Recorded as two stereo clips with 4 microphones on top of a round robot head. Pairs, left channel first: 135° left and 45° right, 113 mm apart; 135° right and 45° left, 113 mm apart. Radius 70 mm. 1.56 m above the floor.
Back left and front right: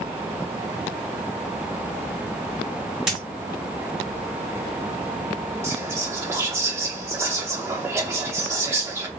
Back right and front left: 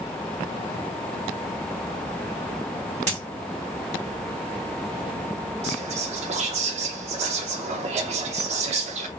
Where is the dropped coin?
35° left, 1.8 m.